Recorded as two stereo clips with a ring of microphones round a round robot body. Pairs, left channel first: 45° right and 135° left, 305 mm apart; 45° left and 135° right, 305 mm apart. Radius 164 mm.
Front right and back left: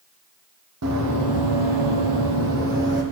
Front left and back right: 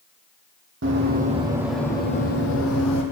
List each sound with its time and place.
0.8 s running footsteps: 175° left, 1.5 m; by 3.0 s 80° left, 1.7 m